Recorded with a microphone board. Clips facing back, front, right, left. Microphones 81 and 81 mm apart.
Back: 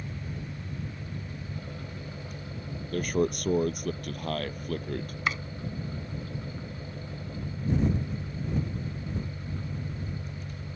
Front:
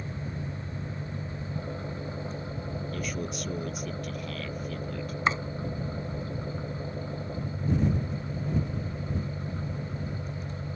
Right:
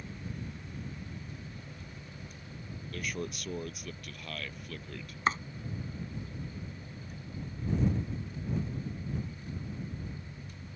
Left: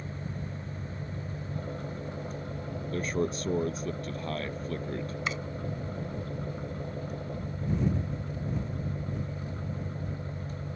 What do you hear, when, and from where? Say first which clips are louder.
0.0 s an engine running: front 2 dB, left 4 dB; 60° left
2.9 s a man speaking: back 10 dB, left 8 dB; 145° left
5.3 s chopping: front 4 dB, right 6 dB; 55° right